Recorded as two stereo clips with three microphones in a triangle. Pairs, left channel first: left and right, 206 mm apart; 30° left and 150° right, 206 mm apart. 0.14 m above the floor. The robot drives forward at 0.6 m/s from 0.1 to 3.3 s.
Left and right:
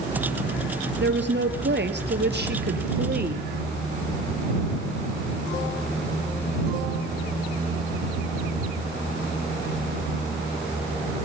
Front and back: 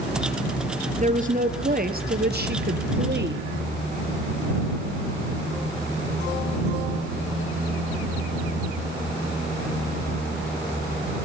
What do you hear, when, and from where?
1.0 s a woman speaking: 100° right, 3 m; by 3.5 s 125° right, 3.5 m